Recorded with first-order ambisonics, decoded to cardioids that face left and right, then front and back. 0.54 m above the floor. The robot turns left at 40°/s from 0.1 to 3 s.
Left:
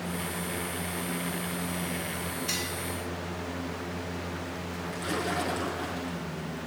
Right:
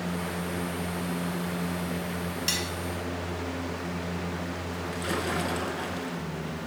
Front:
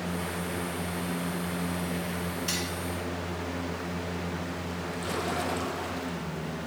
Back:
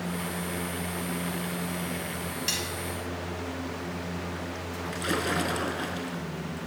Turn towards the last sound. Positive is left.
turn(degrees=-165)